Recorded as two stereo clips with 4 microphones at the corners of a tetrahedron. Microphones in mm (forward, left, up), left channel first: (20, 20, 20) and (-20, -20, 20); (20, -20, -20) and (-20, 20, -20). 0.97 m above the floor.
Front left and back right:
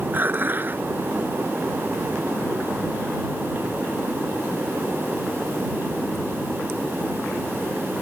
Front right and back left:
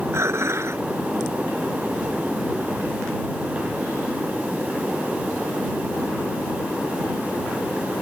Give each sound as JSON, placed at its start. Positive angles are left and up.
{"t": 0.1, "sound": "dishes clattering", "azimuth_deg": 170}